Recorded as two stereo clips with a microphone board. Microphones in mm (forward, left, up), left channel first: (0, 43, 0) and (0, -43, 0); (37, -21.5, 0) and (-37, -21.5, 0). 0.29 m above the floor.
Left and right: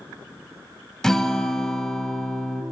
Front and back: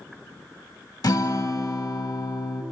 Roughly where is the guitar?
Ahead.